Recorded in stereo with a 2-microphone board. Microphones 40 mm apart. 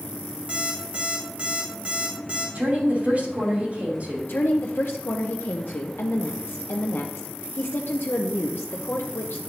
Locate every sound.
0.5 s an alarm clock: 25° right (ahead or behind), 2.5 m
2.5 s a woman speaking: 40° right (ahead or behind), 2.5 m
4.3 s a woman speaking: 65° left (ahead or behind), 0.7 m